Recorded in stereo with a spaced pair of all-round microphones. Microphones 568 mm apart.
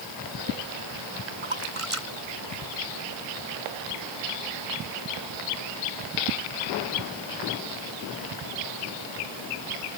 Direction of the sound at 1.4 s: 65° right (ahead or behind).